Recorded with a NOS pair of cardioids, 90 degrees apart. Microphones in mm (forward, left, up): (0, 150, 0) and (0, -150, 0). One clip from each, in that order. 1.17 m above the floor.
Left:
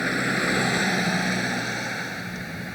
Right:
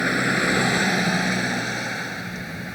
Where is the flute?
No flute in this recording.